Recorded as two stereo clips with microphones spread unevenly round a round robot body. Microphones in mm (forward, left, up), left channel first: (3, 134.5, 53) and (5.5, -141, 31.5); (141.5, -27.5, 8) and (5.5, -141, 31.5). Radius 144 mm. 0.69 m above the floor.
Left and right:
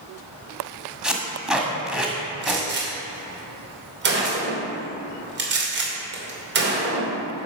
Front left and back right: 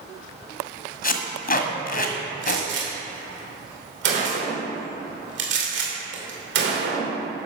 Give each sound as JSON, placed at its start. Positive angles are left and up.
{"t": 1.0, "sound": "tape being pulled", "azimuth_deg": 0, "distance_m": 1.6}
{"t": 2.4, "sound": "a gunshot", "azimuth_deg": -135, "distance_m": 2.5}